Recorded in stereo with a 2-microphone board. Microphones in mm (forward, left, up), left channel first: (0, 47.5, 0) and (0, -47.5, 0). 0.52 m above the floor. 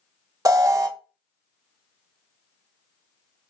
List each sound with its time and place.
0.5 s an alarm: 35° right (ahead or behind), 0.5 m